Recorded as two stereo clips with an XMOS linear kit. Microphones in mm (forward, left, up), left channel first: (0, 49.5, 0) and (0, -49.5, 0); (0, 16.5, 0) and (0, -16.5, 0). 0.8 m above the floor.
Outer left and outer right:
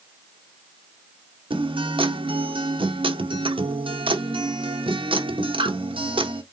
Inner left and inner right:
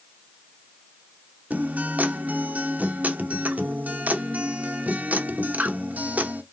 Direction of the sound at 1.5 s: 65° right (ahead or behind).